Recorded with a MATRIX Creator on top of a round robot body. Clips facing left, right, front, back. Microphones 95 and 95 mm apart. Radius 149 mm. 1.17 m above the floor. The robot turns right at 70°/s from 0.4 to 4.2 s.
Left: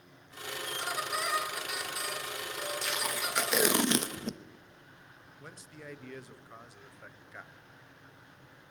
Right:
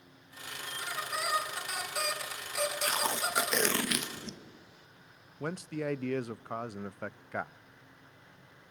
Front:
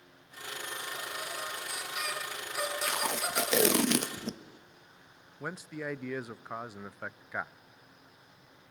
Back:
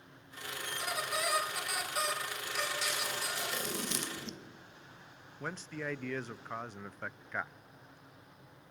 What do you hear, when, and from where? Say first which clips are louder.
0.7 s a squeak: left 2 dB, back 4 dB; 145° left, 3 m; by 3.8 s 5° left, 3 m
2.8 s tape being pulled: right 3 dB, front 5 dB; 50° right, 0.8 m; by 4.4 s 50° left, 0.8 m
5.4 s a man speaking: right 14 dB, front 2 dB; 80° right, 0.5 m